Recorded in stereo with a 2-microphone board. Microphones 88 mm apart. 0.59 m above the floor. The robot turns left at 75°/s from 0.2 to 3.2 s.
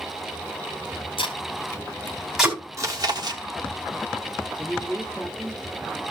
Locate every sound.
1.2 s tape being pulled: 80° left, 2.5 m; by 2.6 s 15° right (ahead or behind), 2.5 m
2.8 s chewing: 45° right, 1.6 m; by 3.4 s 80° right, 1.6 m
4.6 s a man speaking: 10° right (ahead or behind), 1.6 m